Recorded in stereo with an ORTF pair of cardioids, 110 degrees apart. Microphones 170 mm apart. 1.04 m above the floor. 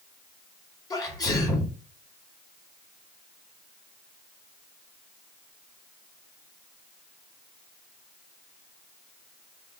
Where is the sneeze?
20° left, 1.9 m.